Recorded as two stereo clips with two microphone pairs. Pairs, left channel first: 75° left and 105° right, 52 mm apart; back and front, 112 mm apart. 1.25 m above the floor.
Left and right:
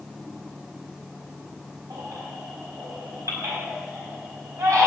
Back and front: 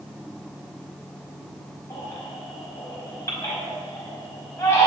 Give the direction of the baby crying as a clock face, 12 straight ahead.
4 o'clock.